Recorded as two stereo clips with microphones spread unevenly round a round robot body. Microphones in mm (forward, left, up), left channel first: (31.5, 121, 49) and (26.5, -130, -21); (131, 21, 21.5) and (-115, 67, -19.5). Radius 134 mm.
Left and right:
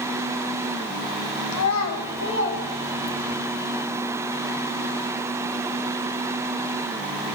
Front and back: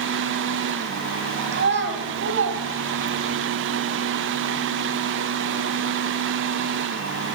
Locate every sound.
1.5 s a child speaking: 130° left, 2 m; by 3.4 s 160° left, 1.6 m